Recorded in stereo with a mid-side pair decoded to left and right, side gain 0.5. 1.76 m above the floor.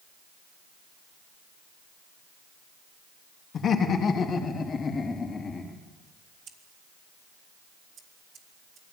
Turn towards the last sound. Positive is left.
turn(degrees=-65)